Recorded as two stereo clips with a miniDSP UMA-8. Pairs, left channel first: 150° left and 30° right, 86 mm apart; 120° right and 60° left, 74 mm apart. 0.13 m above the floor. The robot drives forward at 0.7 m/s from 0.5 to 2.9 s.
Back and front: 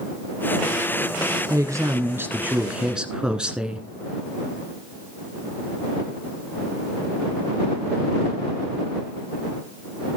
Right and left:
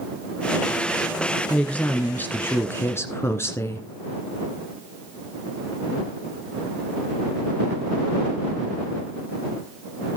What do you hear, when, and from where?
1.5 s a woman speaking: 50° right, 1.7 m; by 3.9 s 105° right, 1.5 m